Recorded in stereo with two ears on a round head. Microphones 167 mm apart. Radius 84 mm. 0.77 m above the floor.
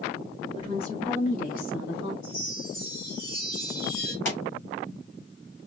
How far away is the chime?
About 4 m.